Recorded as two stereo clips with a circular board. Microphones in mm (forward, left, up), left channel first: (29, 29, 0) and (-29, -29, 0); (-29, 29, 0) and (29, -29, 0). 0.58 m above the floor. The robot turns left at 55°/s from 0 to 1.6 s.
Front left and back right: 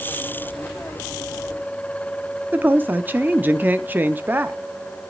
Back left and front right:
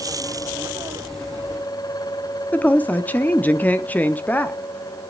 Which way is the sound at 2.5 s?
Straight behind.